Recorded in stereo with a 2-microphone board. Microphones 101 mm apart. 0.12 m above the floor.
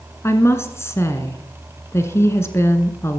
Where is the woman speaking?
25° left (ahead or behind), 1.6 m.